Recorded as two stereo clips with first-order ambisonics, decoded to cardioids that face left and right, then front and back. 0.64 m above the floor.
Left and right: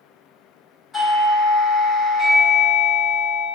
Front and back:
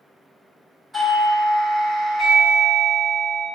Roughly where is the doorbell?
Behind left.